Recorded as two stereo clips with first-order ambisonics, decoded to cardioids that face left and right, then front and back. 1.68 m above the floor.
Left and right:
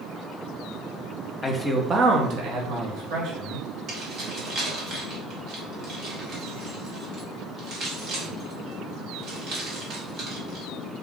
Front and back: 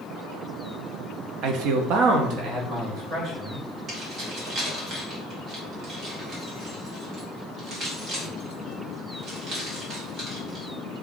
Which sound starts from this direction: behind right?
Keys jangling, at 3.9 s.